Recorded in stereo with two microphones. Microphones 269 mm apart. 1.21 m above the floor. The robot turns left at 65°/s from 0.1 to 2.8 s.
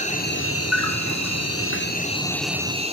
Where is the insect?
155° left, 2.5 m; by 2.9 s 20° right, 2.5 m.